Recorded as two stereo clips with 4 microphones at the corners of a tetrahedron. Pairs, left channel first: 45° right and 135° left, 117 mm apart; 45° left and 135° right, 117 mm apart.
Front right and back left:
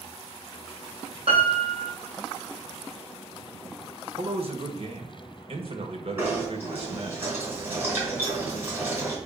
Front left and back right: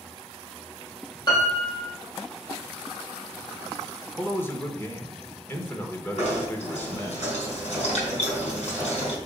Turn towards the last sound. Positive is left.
turn(degrees=65)